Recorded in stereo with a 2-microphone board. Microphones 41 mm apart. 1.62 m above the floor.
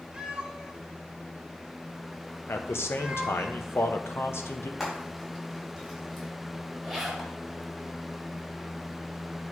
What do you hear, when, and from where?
0.1 s a cat meowing: 20° right (ahead or behind), 0.9 m
2.5 s a man speaking: 70° left (ahead or behind), 0.9 m
4.8 s frying: centre (ahead or behind), 4 m
6.8 s a zipper: centre (ahead or behind), 1.9 m